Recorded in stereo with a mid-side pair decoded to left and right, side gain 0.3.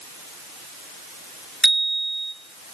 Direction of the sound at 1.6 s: 25° right.